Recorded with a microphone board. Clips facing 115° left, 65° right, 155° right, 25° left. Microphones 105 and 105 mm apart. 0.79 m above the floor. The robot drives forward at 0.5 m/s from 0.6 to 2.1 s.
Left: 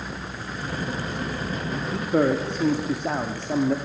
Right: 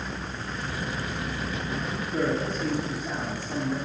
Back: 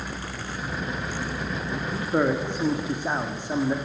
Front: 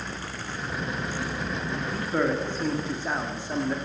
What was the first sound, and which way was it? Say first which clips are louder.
A man speaking: left 7 dB, back 3 dB; 125° left.